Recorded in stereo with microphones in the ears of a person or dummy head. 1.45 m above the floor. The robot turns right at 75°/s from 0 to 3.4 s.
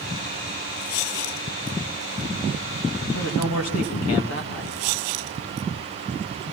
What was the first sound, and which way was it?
A man speaking, 70° left (ahead or behind).